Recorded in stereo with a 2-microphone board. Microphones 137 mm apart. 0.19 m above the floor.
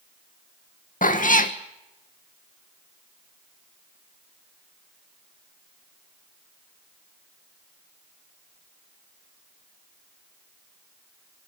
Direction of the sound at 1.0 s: 75° left (ahead or behind).